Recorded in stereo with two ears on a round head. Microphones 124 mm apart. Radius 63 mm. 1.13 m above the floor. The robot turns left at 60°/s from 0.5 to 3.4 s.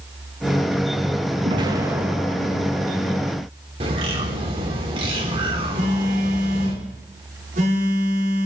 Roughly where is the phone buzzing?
Right.